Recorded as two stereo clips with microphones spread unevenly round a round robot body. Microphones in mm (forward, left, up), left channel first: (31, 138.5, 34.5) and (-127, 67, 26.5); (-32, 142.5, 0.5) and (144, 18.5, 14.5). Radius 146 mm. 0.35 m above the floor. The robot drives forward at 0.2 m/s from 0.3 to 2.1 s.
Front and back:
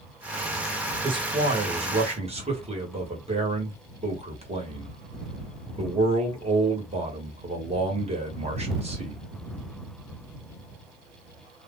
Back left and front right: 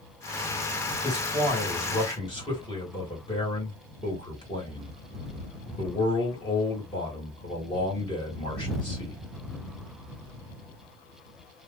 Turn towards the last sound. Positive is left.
turn(degrees=-165)